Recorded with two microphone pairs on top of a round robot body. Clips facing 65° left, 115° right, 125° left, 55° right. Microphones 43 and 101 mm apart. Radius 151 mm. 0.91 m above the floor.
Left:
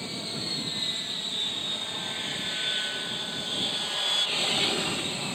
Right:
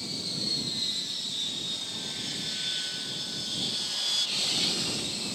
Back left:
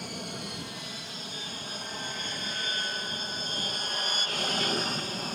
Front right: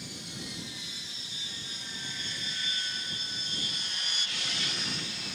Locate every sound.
0.0 s an aircraft: 120° left; by 5.3 s 110° left